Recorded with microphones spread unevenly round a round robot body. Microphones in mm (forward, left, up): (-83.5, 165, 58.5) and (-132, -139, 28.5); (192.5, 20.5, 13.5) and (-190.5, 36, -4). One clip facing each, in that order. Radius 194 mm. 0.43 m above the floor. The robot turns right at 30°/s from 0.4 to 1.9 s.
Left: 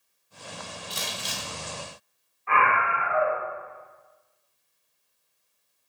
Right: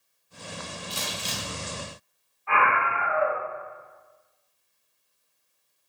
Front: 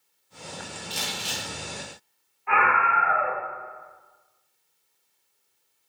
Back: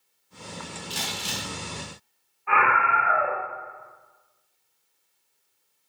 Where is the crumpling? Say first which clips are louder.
Right 2 dB, back 1 dB; 145° left, 0.9 m; by 1.5 s 165° left, 0.9 m.